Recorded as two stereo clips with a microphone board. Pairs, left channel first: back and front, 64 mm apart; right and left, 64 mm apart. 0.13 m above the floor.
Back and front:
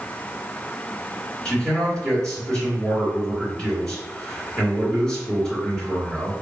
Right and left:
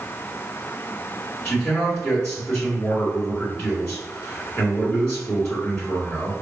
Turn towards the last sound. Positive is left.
turn(degrees=-115)